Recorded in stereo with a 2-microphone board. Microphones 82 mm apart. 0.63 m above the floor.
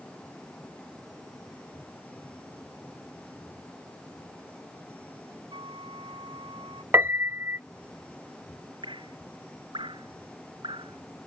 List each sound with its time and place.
5.5 s a flute: 85° right
6.9 s a piano: 30° right (ahead or behind)
8.8 s dripping: 85° right